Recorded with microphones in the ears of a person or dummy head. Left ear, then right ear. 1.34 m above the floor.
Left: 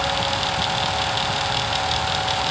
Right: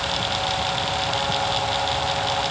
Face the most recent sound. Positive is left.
No sound to turn to.